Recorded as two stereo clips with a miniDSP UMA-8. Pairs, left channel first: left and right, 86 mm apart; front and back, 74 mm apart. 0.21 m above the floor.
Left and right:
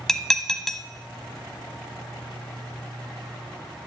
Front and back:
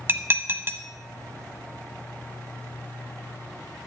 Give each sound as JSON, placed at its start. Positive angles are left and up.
{"t": 0.1, "sound": "dishes clattering", "azimuth_deg": 170, "distance_m": 0.7}